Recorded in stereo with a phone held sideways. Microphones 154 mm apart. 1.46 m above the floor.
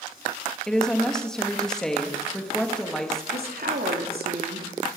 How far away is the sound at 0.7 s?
About 2.5 m.